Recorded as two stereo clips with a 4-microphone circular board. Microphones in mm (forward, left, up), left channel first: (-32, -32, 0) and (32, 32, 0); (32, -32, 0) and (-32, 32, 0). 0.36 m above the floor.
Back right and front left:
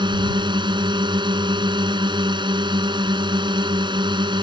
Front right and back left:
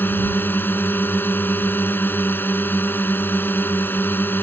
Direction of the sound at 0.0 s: 20° left.